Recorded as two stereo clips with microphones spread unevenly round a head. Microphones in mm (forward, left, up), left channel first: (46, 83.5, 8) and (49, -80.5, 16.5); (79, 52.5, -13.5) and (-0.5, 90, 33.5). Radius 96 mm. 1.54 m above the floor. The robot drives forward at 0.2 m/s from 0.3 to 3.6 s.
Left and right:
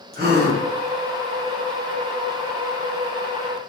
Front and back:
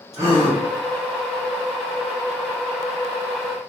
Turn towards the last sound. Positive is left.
turn(degrees=-160)